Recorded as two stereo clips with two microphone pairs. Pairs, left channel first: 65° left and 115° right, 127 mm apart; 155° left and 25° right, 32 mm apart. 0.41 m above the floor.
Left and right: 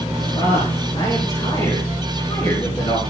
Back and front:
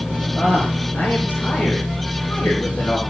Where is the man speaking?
115° left, 6.5 m.